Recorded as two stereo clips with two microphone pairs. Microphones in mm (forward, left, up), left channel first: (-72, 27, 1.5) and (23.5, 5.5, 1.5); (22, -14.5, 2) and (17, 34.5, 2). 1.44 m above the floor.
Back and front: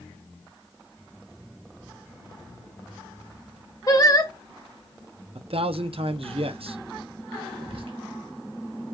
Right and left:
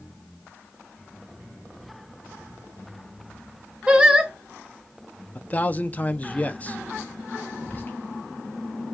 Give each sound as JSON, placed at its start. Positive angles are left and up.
{"t": 3.9, "sound": "singing", "azimuth_deg": 160, "distance_m": 0.9}
{"t": 5.3, "sound": "a man speaking", "azimuth_deg": -25, "distance_m": 0.6}
{"t": 7.6, "sound": "whispering", "azimuth_deg": -30, "distance_m": 1.4}